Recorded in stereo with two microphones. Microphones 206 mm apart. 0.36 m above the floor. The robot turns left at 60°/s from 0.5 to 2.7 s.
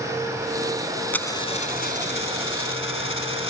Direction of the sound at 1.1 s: 175° left.